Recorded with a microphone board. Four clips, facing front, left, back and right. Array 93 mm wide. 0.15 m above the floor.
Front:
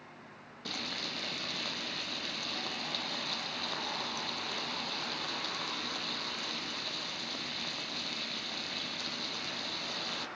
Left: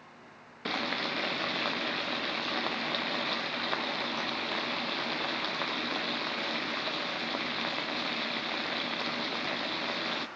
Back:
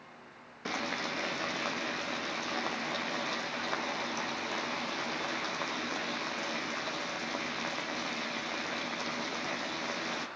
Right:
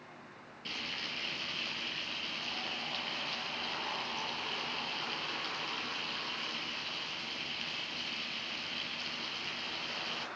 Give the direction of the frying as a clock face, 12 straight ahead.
8 o'clock.